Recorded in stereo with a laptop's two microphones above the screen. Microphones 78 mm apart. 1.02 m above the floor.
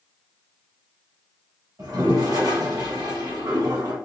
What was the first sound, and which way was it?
A toilet flushing, 50° right (ahead or behind).